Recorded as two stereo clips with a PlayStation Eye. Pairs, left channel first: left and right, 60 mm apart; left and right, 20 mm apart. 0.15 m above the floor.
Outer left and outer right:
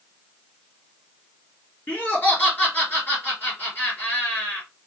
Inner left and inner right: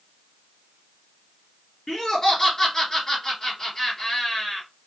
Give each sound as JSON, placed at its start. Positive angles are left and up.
{"t": 1.9, "sound": "laughter", "side_deg": 35, "distance_m": 2.5}